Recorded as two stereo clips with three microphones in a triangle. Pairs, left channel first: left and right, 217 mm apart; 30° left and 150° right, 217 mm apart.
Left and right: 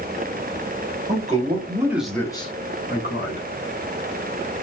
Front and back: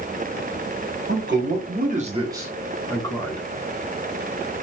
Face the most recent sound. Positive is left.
turn(degrees=90)